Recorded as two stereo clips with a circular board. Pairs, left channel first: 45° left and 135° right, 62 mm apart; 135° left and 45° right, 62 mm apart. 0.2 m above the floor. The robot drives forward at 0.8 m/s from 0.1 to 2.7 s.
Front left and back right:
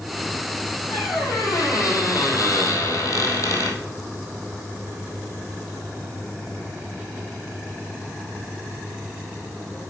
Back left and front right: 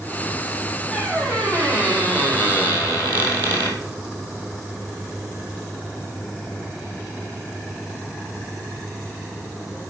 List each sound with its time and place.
0.9 s a squeak: 55° left, 3.5 m; by 3.8 s 80° left, 3 m